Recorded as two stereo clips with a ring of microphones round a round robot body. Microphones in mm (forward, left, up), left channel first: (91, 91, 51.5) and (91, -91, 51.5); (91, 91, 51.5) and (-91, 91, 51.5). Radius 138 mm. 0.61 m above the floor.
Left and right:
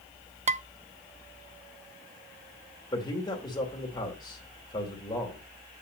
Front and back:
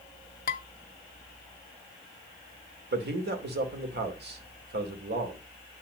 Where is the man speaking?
160° left, 2.5 m.